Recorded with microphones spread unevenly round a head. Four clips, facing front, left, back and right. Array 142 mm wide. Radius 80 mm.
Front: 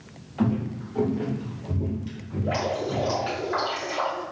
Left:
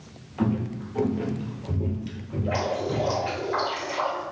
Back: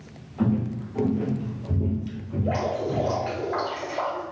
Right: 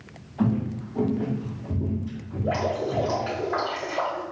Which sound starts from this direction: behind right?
Dripping, at 2.4 s.